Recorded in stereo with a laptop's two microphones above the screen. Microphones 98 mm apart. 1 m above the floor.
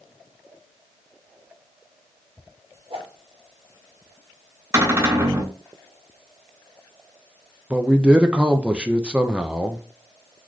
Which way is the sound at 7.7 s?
10° right (ahead or behind).